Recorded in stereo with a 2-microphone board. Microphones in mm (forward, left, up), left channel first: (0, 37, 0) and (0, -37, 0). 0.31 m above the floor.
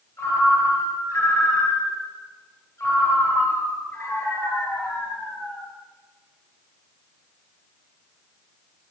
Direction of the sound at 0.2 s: 35° left (ahead or behind).